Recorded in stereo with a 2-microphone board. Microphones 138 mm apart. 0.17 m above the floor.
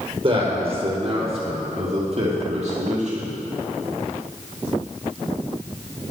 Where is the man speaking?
40° right (ahead or behind), 4 m; by 3.4 s 55° right (ahead or behind), 5 m.